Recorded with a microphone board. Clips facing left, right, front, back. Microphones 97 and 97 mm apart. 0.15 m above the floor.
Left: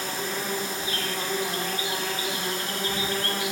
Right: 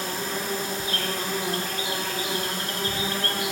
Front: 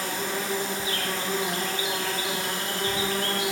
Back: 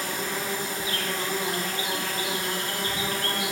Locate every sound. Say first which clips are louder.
0.0 s an insect: right 1 dB, front 1 dB; 60° right, 0.7 m